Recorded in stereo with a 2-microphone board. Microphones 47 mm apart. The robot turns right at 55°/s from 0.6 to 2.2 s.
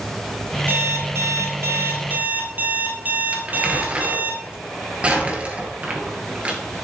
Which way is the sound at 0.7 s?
125° right.